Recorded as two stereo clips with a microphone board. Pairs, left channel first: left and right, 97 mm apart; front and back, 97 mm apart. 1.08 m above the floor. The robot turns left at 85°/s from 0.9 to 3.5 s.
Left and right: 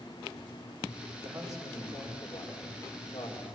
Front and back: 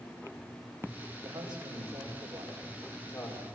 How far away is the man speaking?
About 4.5 m.